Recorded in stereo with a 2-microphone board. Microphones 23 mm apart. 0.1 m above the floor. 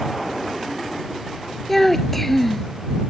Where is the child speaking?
10° left (ahead or behind).